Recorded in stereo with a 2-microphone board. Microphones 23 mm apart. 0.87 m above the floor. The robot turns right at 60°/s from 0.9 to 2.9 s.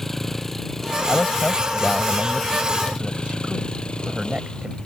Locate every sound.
0.0 s a vehicle: 15° left; by 4.9 s 135° left
1.1 s a man speaking: 125° left; by 4.8 s 125° right